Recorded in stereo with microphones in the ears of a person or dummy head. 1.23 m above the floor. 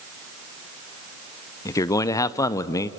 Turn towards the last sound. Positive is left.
turn(degrees=15)  # may be behind; listen again after turning